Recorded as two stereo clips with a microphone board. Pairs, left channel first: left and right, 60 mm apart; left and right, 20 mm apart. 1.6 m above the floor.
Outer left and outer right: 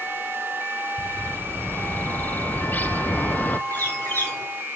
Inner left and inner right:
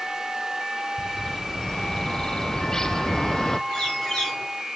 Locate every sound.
1.0 s a bird: 30° left (ahead or behind), 0.5 m
3.7 s a bird: 35° left (ahead or behind), 6.5 m